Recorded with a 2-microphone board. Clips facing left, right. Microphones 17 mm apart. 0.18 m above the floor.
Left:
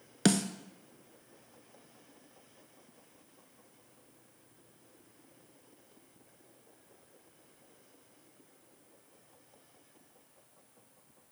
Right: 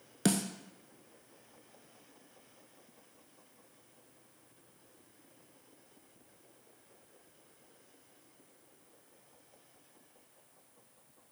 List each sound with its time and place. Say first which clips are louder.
0.2 s a snare drum: left 3 dB; 25° left (ahead or behind), 0.6 m